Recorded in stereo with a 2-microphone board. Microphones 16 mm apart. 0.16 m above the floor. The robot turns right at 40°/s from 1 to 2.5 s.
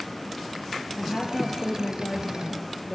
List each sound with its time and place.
1.0 s a woman speaking: 45° left, 3 m; by 3.0 s 105° left, 3 m